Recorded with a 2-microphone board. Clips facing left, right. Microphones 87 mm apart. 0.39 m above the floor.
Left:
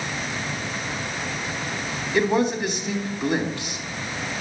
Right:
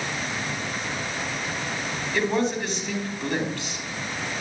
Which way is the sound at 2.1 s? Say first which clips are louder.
Left 3 dB; 15° left (ahead or behind).